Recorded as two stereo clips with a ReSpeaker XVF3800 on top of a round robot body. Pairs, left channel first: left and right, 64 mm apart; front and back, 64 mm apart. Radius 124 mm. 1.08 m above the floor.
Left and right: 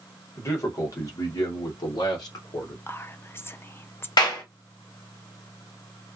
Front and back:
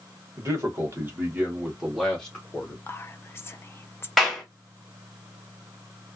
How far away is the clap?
About 0.9 m.